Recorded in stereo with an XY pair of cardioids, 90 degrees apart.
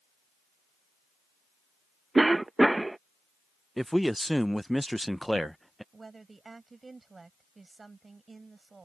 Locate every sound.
2.1 s a cough: 15° right
3.8 s a man speaking: straight ahead
5.9 s a woman speaking: 30° right